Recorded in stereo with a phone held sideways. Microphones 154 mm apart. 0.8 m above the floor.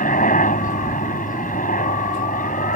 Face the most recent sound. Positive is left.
turn(degrees=55)  # may be behind; listen again after turning